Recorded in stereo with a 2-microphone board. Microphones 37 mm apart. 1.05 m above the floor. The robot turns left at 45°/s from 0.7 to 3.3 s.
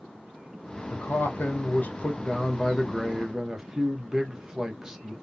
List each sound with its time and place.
0.9 s a man speaking: 95° left, 0.8 m; by 5.1 s 15° right, 0.8 m